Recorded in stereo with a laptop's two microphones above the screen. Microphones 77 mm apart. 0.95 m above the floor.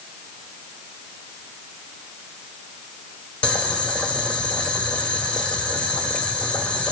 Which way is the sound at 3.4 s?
15° left (ahead or behind).